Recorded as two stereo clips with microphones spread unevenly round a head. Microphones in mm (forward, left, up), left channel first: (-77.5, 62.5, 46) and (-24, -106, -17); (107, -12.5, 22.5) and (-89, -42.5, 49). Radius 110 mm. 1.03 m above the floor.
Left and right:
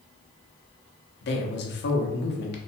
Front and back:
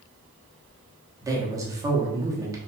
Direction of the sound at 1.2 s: 115° left.